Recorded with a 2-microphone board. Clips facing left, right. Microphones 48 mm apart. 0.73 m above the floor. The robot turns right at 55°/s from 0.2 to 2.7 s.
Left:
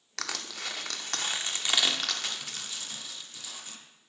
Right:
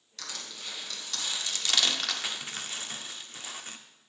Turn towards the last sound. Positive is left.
turn(degrees=-35)  # may be behind; listen again after turning